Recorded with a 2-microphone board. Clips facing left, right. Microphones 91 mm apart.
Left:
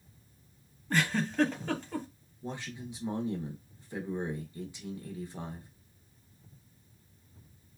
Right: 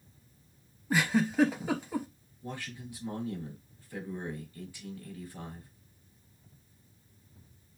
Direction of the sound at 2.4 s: 20° left (ahead or behind).